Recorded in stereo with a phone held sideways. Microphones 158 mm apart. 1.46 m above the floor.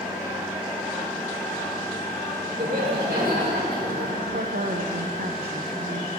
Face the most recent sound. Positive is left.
turn(degrees=-80)